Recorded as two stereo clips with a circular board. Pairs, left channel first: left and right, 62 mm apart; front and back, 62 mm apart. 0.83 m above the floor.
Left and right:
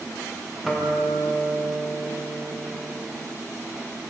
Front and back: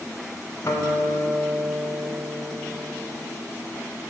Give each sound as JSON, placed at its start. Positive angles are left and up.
{"t": 0.6, "sound": "a guitar", "azimuth_deg": 0, "distance_m": 0.7}